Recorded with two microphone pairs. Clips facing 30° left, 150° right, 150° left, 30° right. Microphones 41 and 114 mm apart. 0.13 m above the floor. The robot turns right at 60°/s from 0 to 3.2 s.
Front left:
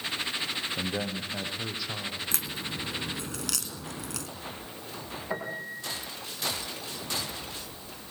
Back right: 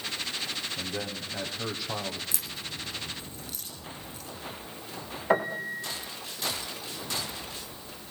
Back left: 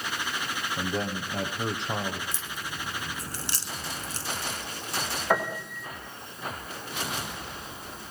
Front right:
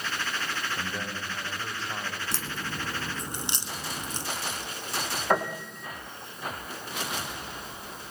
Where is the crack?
10° right, 3.5 m; by 4.3 s 45° left, 3.5 m.